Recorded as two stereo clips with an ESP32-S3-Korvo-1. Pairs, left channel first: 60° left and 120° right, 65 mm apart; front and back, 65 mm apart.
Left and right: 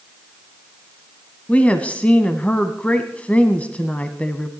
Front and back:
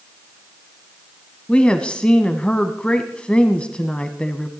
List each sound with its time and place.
1.5 s a woman speaking: 45° left, 1.0 m